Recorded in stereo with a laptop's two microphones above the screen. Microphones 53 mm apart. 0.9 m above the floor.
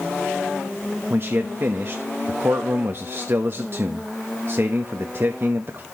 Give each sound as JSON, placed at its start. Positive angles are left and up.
{"t": 1.1, "sound": "a man speaking", "side_deg": -50, "distance_m": 0.8}